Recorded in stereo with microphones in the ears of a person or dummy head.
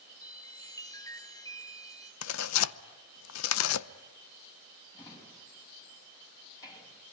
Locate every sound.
0.2 s a chime: 10° left (ahead or behind), 1.1 m
2.2 s tearing paper: 85° left, 0.7 m
4.9 s a drawer: 25° left (ahead or behind), 5 m